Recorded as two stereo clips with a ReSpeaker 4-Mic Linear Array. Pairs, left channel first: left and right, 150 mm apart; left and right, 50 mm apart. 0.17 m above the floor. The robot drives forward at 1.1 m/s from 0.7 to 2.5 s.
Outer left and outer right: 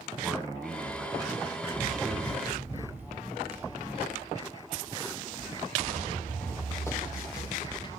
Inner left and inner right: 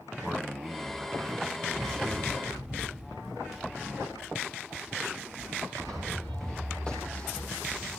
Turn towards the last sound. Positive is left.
turn(degrees=30)  # may be behind; listen again after turning